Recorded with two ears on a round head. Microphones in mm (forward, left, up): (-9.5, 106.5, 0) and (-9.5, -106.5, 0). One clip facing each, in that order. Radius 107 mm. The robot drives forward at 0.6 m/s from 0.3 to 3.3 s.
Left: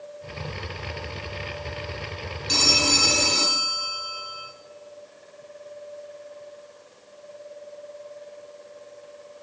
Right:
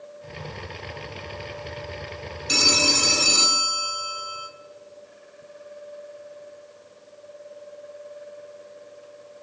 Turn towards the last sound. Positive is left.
turn(degrees=-10)  # may be behind; listen again after turning